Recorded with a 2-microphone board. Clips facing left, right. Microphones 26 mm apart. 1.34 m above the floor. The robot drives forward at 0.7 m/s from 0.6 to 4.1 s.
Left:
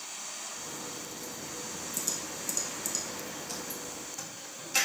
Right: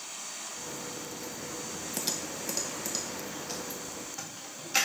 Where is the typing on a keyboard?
60° right (ahead or behind), 0.5 m; by 4.9 s 15° right (ahead or behind), 1.6 m.